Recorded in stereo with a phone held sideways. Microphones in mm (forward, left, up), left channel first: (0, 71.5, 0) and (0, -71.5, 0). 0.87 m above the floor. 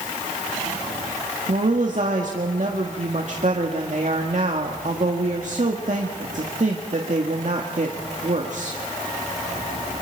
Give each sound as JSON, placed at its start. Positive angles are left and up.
{"t": 1.5, "sound": "a woman speaking", "side_deg": -60, "distance_m": 1.9}